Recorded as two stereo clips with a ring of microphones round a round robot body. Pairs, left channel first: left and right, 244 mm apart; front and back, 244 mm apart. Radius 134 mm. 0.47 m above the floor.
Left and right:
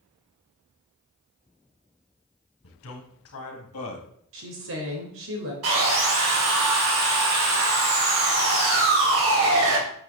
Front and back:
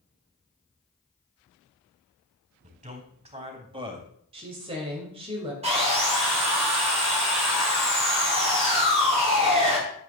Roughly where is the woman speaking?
Behind right.